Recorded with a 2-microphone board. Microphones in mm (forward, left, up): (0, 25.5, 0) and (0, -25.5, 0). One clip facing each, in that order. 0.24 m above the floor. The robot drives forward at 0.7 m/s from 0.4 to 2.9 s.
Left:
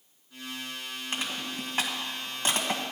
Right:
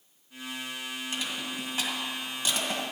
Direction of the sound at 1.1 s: 40° left (ahead or behind).